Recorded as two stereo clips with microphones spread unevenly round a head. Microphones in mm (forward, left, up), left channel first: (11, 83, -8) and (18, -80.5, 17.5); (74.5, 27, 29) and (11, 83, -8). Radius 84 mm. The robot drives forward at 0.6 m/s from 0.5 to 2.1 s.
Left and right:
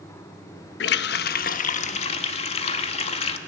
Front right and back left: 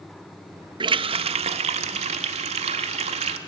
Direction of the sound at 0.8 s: 95° left.